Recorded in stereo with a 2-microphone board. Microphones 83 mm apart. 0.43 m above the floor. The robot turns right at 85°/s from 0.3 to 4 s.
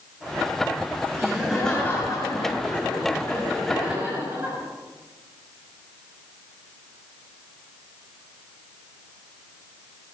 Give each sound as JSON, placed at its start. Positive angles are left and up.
{"t": 1.2, "sound": "laughter", "azimuth_deg": -30, "distance_m": 5.5}